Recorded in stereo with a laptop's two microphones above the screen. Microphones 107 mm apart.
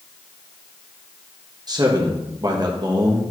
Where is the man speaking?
40° right (ahead or behind), 0.8 m.